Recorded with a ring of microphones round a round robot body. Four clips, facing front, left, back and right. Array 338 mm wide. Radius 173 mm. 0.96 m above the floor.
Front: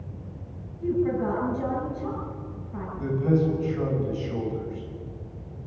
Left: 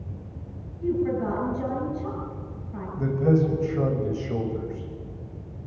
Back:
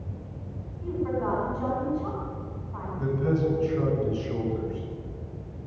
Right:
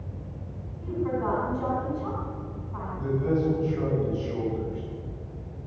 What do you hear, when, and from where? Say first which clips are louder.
0.8 s a woman speaking: left 3 dB, front 4 dB; 45° left, 8.5 m
3.0 s a man speaking: left 4 dB, front 2 dB; 100° left, 6 m